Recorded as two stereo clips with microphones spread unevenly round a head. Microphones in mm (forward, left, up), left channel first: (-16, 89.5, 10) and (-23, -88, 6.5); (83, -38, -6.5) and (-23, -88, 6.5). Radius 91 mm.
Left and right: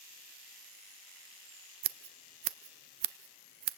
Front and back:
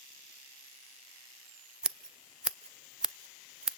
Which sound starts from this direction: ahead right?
Scissors, at 1.8 s.